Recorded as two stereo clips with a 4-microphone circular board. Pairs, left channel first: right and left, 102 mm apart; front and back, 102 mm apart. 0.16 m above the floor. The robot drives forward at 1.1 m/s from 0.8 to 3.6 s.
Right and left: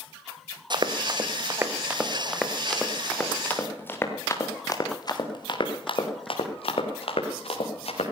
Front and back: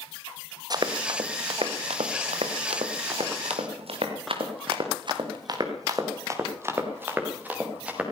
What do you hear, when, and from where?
0.7 s running footsteps: 130° left, 1.9 m; by 8.0 s 100° right, 4.5 m